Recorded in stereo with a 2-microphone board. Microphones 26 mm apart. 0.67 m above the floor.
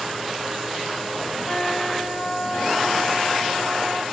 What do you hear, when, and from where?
1.5 s a trumpet: 25° left (ahead or behind), 3 m